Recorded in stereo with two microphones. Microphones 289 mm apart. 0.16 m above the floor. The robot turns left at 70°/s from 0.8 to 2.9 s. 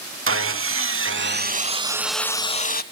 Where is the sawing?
85° right, 0.6 m; by 2.8 s 130° left, 0.6 m.